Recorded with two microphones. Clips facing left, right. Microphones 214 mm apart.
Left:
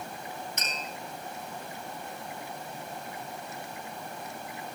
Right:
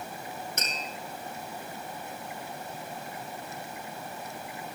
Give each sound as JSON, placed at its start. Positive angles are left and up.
{"t": 0.6, "sound": "tapping", "side_deg": -55, "distance_m": 3.5}